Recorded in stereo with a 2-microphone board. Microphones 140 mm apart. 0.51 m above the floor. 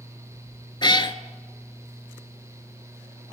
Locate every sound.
0.8 s a cat meowing: 35° left (ahead or behind), 0.5 m